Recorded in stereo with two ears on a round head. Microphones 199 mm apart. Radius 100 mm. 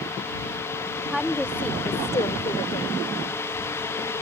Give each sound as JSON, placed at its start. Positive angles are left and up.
{"t": 1.1, "sound": "a woman speaking", "side_deg": 0}